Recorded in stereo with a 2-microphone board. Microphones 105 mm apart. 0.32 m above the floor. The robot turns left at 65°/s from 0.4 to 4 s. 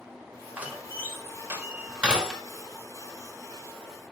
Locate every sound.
0.6 s a door slam: 15° right (ahead or behind), 0.6 m; by 2.4 s 5° right (ahead or behind), 0.6 m